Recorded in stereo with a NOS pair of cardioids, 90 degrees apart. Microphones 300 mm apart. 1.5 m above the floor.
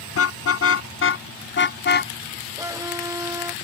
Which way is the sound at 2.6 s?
10° right.